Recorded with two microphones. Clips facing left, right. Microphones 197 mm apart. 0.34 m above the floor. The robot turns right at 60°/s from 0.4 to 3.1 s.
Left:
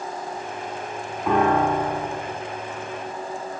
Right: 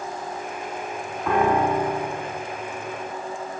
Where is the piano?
170° left, 1.4 m; by 2.3 s 130° right, 1.4 m.